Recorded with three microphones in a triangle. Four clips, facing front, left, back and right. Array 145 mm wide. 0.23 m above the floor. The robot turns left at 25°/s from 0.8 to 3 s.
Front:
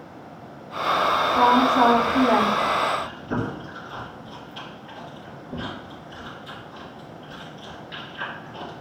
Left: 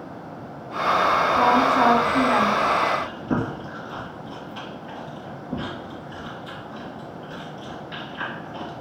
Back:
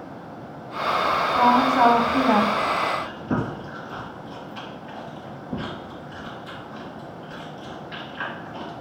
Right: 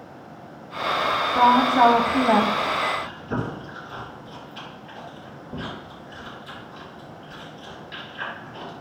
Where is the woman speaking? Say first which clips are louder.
Right 4 dB, even; 100° right, 1.3 m; by 2.5 s 130° right, 1.3 m.